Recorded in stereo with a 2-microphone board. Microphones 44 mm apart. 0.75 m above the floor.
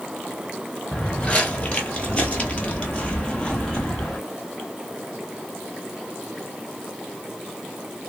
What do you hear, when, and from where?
0.9 s footsteps: 25° left (ahead or behind), 1.2 m; by 4.2 s 15° left (ahead or behind), 1.2 m